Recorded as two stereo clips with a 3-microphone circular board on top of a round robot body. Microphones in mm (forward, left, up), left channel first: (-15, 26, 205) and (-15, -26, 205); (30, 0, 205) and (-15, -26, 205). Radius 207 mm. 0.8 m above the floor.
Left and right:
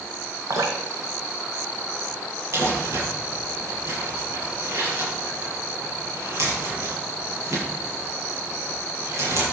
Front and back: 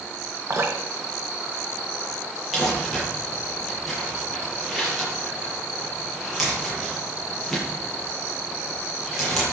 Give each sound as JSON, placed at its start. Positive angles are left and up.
{"t": 0.5, "sound": "dripping", "azimuth_deg": -110, "distance_m": 1.9}
{"t": 2.5, "sound": "crumpling", "azimuth_deg": -60, "distance_m": 8.5}